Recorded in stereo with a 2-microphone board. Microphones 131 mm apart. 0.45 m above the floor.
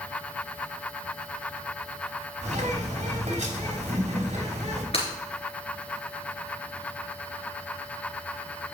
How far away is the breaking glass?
About 4 m.